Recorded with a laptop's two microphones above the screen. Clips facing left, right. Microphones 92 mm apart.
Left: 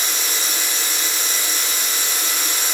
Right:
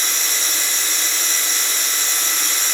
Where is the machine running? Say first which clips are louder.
Even; 10° left (ahead or behind), 0.9 m.